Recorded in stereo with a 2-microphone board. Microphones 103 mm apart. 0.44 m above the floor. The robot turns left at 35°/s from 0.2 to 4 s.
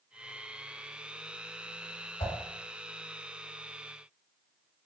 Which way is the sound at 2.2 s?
70° left (ahead or behind).